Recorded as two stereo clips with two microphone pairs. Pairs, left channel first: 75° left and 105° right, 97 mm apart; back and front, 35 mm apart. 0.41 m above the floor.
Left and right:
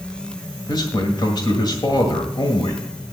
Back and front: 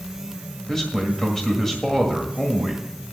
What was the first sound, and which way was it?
A man speaking, 105° left.